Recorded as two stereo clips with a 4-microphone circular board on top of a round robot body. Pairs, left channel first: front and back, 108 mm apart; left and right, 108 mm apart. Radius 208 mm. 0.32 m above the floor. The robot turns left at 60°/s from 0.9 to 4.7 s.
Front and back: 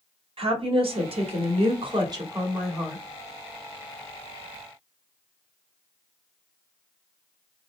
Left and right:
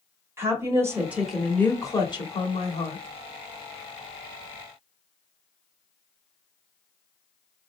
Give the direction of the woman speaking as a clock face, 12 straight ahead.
5 o'clock.